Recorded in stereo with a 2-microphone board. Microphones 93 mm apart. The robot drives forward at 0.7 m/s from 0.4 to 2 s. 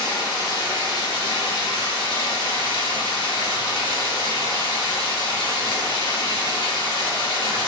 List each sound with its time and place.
0.0 s running water: 45° left (ahead or behind), 1.7 m; by 7.7 s 70° left (ahead or behind), 1.3 m